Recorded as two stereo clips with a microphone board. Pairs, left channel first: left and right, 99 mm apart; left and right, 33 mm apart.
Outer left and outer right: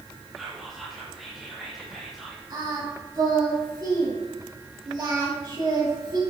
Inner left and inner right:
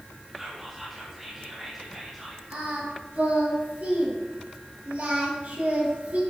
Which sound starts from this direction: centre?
Whispering, at 0.4 s.